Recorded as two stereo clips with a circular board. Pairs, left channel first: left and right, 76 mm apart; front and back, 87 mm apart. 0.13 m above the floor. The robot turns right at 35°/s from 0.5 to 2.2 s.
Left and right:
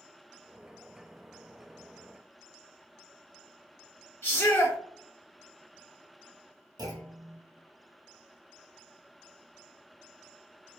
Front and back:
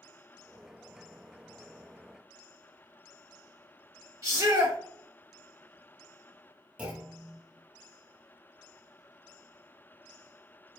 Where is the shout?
130° left, 2 m.